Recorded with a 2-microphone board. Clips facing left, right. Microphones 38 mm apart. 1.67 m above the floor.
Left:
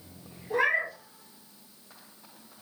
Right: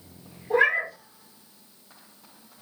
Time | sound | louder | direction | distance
0.5 | a cat meowing | right 4 dB | 40° right (ahead or behind) | 1.3 m